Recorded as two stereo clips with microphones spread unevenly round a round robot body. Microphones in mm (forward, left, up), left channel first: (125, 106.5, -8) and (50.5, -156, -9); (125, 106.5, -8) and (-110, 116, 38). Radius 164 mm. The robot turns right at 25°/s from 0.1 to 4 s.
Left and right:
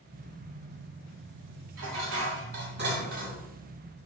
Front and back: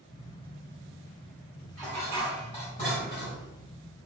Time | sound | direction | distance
1.8 | dishes clattering | 85° right | 1.2 m